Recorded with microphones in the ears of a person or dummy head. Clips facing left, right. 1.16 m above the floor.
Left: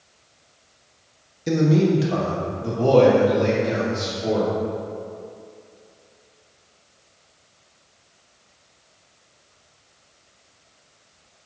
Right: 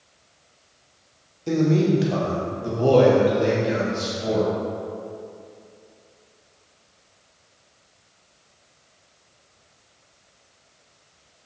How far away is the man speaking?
About 0.7 m.